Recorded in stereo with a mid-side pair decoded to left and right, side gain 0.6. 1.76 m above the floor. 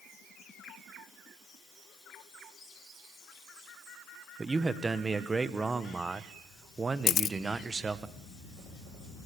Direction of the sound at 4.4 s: 25° right.